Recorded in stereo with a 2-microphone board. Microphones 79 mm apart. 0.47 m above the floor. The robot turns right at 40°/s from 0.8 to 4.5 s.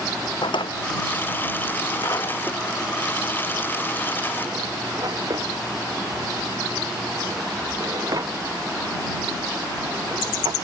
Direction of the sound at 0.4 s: 80° left.